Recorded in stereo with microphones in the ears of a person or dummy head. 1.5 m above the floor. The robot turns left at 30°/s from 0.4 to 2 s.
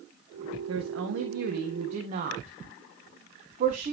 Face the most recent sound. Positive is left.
turn(degrees=-140)